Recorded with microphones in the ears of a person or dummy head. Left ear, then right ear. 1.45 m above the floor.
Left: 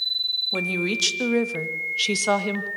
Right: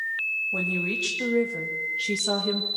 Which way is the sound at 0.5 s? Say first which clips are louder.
Left 2 dB; 80° left.